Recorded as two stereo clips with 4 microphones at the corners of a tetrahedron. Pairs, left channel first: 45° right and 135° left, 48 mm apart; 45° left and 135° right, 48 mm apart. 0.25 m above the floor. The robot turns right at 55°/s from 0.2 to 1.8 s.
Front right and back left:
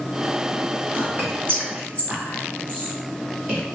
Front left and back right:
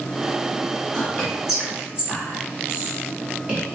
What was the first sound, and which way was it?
Whispering, 120° left.